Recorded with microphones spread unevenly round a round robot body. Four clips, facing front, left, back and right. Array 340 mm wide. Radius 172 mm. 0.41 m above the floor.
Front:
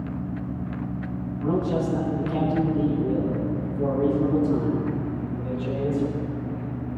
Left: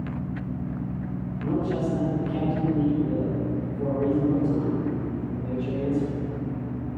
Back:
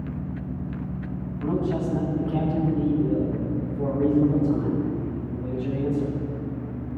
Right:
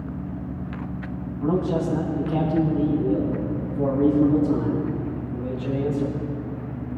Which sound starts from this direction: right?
A man speaking, at 1.4 s.